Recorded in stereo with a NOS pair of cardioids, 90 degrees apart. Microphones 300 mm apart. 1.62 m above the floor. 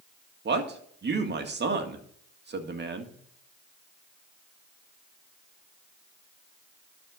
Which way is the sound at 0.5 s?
35° right.